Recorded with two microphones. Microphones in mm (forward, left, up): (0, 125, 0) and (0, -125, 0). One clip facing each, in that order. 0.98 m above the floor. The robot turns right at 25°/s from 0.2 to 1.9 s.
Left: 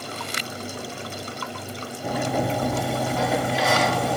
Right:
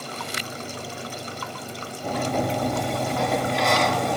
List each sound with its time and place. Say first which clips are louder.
2.0 s a sliding door: even; 5° left (ahead or behind), 1.1 m